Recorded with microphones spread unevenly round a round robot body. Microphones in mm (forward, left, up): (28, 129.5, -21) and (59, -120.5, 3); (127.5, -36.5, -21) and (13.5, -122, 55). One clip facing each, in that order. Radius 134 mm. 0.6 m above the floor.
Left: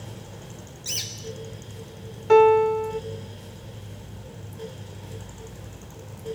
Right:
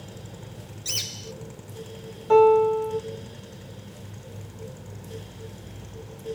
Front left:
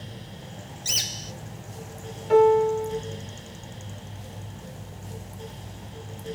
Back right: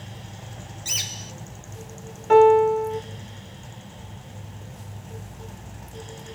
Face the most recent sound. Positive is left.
turn(degrees=155)